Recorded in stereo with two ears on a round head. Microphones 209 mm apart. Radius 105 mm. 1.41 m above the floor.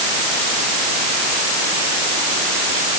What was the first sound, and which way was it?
Only background noise.